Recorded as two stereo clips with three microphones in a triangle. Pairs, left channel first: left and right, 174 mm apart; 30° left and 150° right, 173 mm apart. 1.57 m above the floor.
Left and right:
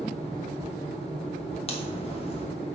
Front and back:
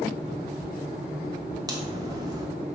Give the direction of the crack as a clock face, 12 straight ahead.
7 o'clock.